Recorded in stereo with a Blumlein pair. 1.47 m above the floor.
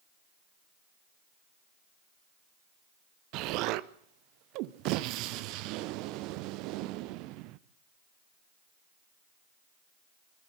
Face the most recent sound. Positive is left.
turn(degrees=-40)